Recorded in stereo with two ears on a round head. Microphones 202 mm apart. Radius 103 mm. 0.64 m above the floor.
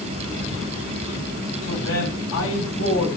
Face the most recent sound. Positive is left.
turn(degrees=65)  # may be behind; listen again after turning